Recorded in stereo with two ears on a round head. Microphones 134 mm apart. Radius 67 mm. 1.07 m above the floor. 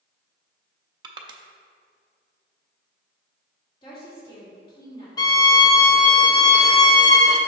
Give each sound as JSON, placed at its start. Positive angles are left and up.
{"t": 1.0, "sound": "crushing", "side_deg": -30, "distance_m": 0.6}
{"t": 3.8, "sound": "a woman speaking", "side_deg": 35, "distance_m": 2.0}
{"t": 5.2, "sound": "a violin", "side_deg": 25, "distance_m": 0.6}